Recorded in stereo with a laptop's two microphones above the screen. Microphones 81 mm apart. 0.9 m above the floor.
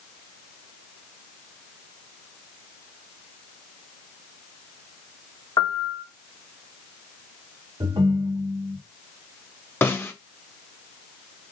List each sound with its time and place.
5.6 s a piano: 50° left (ahead or behind), 0.6 m
7.8 s a ringtone: 80° right, 1.2 m
9.8 s a snare drum: 25° left (ahead or behind), 0.7 m